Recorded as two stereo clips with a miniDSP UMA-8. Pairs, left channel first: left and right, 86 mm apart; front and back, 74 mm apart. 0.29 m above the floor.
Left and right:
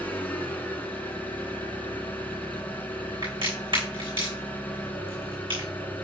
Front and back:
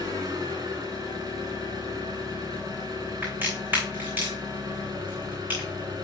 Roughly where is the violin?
I don't hear a violin.